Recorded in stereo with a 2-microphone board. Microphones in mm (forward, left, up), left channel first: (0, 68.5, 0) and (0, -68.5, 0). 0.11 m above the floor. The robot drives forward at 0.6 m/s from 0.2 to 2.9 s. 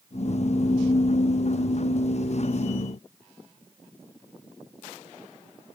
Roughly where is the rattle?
I don't hear a rattle.